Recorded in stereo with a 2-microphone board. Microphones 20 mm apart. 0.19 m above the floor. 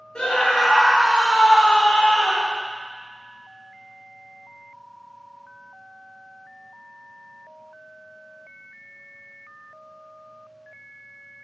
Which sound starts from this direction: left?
A scream, at 0.1 s.